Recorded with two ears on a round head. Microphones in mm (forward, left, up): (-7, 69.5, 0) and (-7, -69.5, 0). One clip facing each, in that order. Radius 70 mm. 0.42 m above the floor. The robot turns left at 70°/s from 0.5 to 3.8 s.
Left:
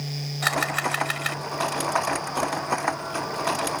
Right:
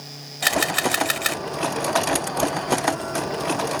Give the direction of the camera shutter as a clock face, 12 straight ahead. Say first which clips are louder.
Right 4 dB; 1 o'clock.